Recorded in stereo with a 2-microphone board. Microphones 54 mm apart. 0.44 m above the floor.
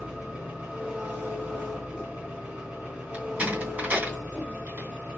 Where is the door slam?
25° right (ahead or behind), 2.5 m.